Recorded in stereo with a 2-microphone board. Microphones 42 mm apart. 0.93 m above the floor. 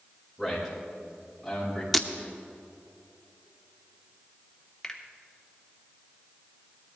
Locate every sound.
0.4 s a man speaking: 5° right (ahead or behind), 4.5 m
1.9 s breaking glass: centre (ahead or behind), 0.7 m
4.8 s a finger snap: 10° left (ahead or behind), 1.3 m